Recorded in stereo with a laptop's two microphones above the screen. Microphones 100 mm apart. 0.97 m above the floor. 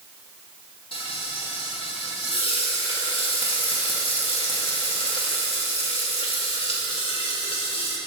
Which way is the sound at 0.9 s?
70° left (ahead or behind).